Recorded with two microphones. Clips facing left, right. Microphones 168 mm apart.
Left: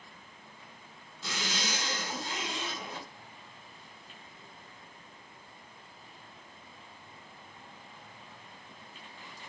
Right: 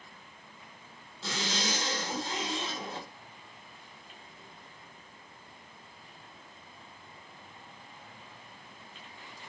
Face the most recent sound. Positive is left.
turn(degrees=-30)  # may be behind; listen again after turning